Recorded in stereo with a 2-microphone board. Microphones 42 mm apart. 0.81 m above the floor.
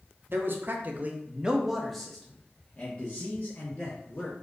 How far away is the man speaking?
About 0.8 m.